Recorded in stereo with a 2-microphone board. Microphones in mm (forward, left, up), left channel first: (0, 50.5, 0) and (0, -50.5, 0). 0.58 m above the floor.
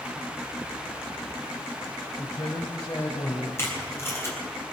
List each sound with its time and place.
2.2 s a man speaking: 45° left (ahead or behind), 1.8 m; by 3.5 s 25° left (ahead or behind), 3 m
3.6 s tape being pulled: 25° left (ahead or behind), 4.5 m